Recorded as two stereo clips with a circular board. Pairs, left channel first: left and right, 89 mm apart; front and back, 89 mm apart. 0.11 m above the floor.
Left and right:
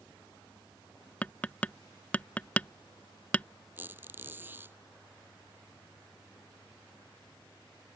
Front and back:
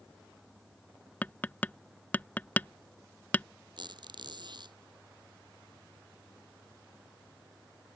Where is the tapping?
40° left.